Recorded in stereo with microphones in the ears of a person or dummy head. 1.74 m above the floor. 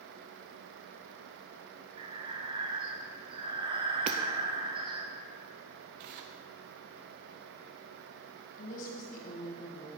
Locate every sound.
2.0 s breathing: 30° right (ahead or behind), 0.9 m
4.1 s hammering: 30° right (ahead or behind), 0.6 m
6.0 s tearing paper: 40° right (ahead or behind), 0.6 m
8.6 s a woman speaking: 45° left (ahead or behind), 1.6 m